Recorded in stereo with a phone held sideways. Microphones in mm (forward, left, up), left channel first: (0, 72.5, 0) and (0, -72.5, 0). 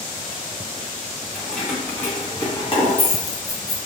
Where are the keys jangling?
Centre (ahead or behind), 1.3 m; by 3.8 s 65° left (ahead or behind), 0.9 m.